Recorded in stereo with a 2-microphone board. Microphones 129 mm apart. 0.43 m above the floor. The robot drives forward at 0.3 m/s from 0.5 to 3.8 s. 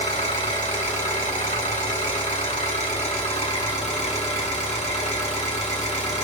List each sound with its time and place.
0.0 s an engine running: 70° left (ahead or behind), 1.5 m; by 6.2 s 60° left (ahead or behind), 1.7 m